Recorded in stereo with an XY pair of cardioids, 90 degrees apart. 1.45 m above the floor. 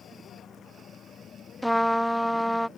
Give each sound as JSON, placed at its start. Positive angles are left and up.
{"t": 0.0, "sound": "a vehicle", "azimuth_deg": 70}
{"t": 1.6, "sound": "a trumpet", "azimuth_deg": 5}